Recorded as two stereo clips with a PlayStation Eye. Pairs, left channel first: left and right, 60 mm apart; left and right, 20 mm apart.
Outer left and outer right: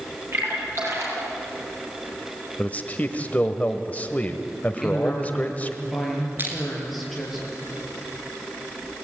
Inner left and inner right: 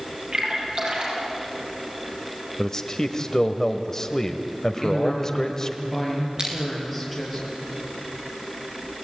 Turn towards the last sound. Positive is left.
turn(degrees=-40)  # may be behind; listen again after turning